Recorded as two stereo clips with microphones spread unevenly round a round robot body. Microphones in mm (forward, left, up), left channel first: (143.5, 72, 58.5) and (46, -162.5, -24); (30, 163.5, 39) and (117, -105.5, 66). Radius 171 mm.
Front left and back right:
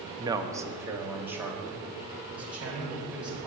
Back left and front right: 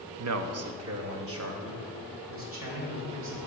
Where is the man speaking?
45° right, 0.6 m; by 3.5 s 30° right, 3 m.